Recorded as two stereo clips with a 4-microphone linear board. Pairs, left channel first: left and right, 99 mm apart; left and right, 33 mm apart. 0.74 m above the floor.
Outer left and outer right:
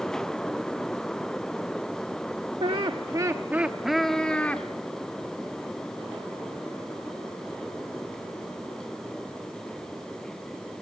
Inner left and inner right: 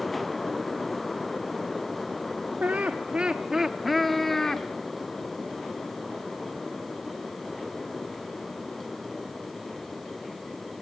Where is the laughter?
65° right (ahead or behind), 1.0 m; by 4.7 s 15° left (ahead or behind), 1.6 m.